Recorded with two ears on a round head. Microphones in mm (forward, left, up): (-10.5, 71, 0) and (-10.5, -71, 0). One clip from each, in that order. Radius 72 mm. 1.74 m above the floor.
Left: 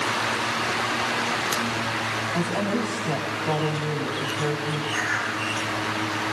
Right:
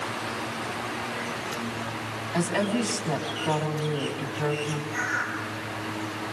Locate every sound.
2.3 s a woman speaking: 65° right (ahead or behind), 4.5 m
4.9 s a bird: 35° left (ahead or behind), 5 m